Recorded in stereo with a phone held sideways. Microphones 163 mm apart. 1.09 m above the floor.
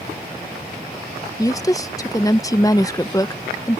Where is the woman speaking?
20° left (ahead or behind).